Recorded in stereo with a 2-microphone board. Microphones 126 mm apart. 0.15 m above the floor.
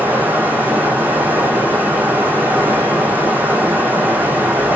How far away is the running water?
About 7 m.